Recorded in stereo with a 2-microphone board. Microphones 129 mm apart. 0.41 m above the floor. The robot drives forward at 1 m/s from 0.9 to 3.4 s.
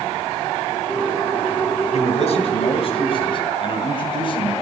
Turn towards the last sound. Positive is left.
turn(degrees=40)  # may be behind; listen again after turning